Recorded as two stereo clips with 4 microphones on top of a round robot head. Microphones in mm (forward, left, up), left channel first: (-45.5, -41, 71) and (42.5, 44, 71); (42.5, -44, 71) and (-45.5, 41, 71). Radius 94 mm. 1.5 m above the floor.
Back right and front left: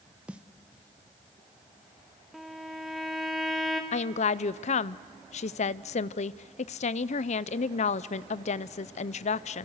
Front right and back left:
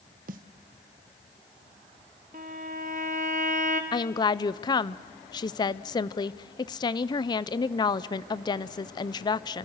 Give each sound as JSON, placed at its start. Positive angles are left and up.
{"t": 0.3, "sound": "a snare drum", "azimuth_deg": 125, "distance_m": 0.9}
{"t": 2.3, "sound": "a violin", "azimuth_deg": 135, "distance_m": 0.9}
{"t": 3.9, "sound": "a woman speaking", "azimuth_deg": -100, "distance_m": 0.5}